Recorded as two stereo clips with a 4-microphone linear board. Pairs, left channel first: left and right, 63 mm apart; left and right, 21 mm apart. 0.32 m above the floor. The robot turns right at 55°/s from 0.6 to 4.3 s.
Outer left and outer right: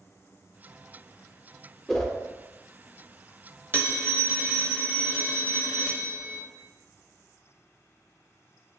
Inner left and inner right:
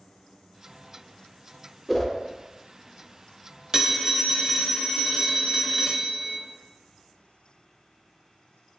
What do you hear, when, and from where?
1.9 s a whoosh: 5° left (ahead or behind), 0.5 m; by 2.1 s 10° left (ahead or behind), 0.5 m
3.7 s a phone ringing: 100° right, 0.6 m; by 6.4 s 65° right, 0.6 m